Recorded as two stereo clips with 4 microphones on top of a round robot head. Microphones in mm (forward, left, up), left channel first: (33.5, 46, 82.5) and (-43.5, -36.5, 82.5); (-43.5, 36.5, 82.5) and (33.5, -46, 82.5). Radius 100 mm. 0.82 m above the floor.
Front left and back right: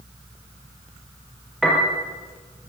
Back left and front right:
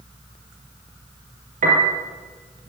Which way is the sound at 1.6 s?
45° right.